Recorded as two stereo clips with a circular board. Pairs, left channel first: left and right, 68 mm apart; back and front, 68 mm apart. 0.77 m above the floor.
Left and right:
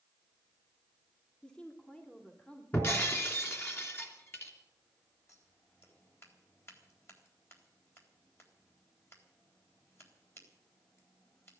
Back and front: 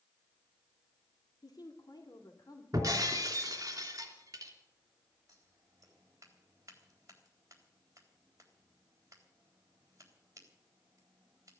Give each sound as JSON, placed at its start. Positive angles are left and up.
{"t": 1.4, "sound": "a woman speaking", "azimuth_deg": 165, "distance_m": 2.5}
{"t": 2.7, "sound": "breaking glass", "azimuth_deg": 35, "distance_m": 3.0}
{"t": 5.3, "sound": "scissors", "azimuth_deg": 40, "distance_m": 3.5}